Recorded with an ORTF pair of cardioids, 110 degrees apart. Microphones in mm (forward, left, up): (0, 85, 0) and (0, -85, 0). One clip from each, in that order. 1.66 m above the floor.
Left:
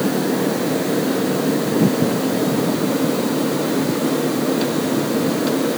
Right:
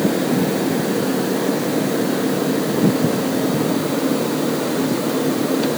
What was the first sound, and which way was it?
Only background noise.